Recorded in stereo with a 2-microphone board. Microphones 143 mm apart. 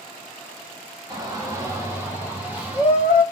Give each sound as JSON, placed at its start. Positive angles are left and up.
{"t": 1.1, "sound": "a shout", "side_deg": -30, "distance_m": 1.5}